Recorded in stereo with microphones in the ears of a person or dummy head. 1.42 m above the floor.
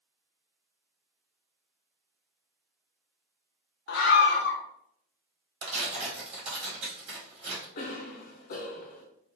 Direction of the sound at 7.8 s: 50° left (ahead or behind).